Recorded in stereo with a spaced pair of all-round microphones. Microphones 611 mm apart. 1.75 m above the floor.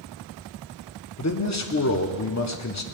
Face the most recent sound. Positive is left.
turn(degrees=25)  # may be behind; listen again after turning